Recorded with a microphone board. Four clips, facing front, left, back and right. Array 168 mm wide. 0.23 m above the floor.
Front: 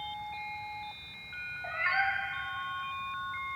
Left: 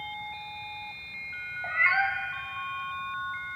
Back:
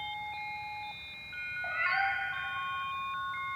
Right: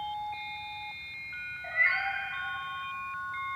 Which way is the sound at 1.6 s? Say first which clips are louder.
Left 4 dB, even; 95° left.